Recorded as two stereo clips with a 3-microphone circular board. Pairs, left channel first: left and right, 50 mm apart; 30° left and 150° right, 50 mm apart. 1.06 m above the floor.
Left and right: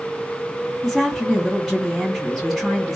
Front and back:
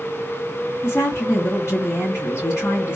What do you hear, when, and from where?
0.8 s a woman speaking: 10° right, 2 m